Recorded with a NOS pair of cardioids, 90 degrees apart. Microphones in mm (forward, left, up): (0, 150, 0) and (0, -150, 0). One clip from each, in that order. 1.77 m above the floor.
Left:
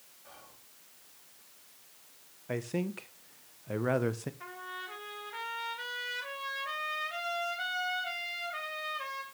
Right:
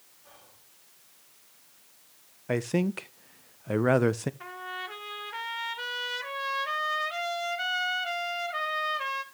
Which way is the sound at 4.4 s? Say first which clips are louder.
Right 5 dB; 35° right.